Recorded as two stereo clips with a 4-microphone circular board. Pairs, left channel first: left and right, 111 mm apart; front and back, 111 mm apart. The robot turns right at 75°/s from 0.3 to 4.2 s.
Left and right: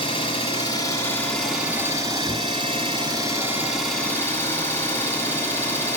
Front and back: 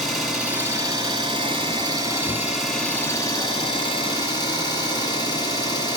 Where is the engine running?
95° left, 1.4 m; by 6.0 s 25° left, 1.4 m.